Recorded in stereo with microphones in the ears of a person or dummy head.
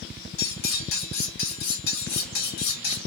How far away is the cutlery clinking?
About 1.3 m.